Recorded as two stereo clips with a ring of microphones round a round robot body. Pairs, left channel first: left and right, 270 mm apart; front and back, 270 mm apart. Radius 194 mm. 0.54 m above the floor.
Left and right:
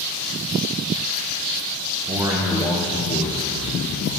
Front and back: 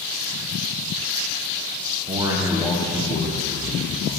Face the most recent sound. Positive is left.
turn(degrees=50)